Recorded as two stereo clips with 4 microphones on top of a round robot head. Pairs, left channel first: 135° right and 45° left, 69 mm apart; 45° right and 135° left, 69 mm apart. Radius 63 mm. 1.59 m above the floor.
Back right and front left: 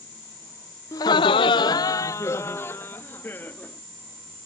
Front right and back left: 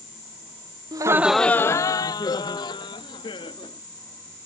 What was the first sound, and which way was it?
Laughter, 175° left.